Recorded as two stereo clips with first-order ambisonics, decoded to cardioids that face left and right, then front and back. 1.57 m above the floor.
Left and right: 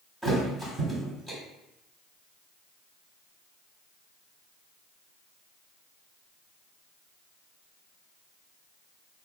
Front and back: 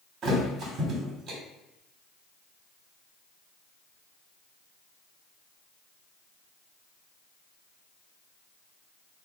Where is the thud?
160° right, 1.4 m.